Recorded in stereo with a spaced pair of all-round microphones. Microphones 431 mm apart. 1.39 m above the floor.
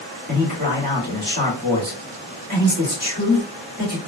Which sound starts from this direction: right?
A man speaking, at 0.3 s.